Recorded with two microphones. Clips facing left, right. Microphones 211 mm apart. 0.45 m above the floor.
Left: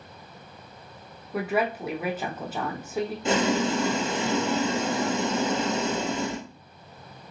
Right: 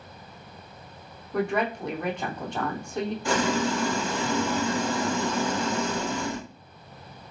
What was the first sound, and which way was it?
A woman speaking, 5° left (ahead or behind).